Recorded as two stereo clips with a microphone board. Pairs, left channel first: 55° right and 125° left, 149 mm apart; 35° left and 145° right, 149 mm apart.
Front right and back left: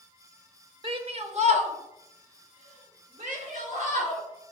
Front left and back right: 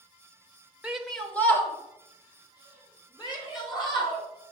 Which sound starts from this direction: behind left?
A shout, at 0.8 s.